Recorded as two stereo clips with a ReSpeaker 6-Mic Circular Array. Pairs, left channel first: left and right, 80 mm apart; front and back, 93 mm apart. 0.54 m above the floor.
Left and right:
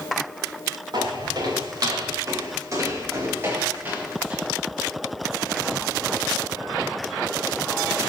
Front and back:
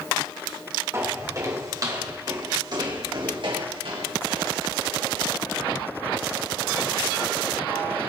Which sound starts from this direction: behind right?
Footsteps, at 0.9 s.